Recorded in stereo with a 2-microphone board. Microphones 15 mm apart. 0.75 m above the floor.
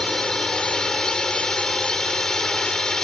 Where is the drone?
55° left (ahead or behind).